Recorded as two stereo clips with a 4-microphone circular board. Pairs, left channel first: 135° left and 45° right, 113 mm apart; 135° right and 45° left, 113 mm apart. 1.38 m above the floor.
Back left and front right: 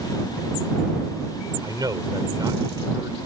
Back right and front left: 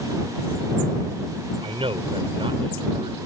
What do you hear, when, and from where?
1.6 s a man speaking: 10° left